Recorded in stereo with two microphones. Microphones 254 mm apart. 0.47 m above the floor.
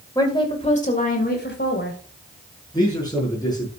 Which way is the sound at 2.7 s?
15° left (ahead or behind).